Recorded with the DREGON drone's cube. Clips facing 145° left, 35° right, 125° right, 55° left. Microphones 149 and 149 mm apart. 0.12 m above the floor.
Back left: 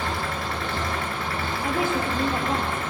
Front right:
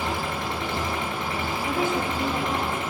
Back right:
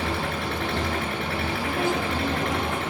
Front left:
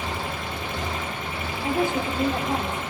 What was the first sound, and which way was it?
An engine running, 105° right.